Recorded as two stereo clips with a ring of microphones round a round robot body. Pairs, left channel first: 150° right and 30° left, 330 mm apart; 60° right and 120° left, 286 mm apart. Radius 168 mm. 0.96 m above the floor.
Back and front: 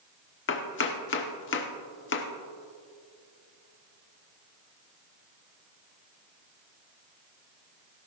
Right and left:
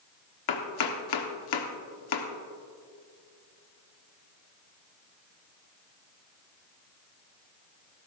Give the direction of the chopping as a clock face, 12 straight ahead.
3 o'clock.